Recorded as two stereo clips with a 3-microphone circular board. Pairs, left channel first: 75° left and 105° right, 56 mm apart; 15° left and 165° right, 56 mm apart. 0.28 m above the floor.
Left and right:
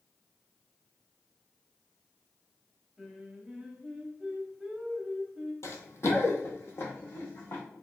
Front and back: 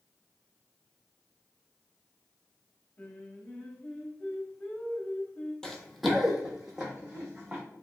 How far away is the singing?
About 0.8 m.